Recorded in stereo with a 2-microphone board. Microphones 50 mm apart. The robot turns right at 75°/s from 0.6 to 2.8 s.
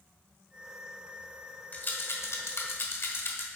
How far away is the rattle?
About 1.3 m.